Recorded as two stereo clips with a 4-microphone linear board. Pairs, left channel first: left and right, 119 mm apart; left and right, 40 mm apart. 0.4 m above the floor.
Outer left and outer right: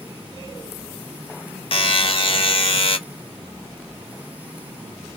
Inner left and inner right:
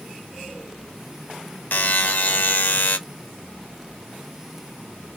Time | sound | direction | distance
1.7 | a buzzer | 55° left (ahead or behind) | 0.6 m